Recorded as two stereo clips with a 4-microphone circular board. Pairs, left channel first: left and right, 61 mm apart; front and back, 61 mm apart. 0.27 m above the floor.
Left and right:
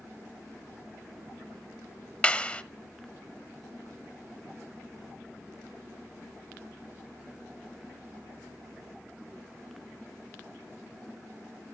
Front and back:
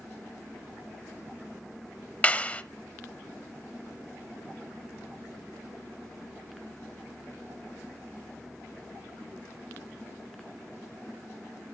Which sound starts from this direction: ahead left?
A clap, at 2.2 s.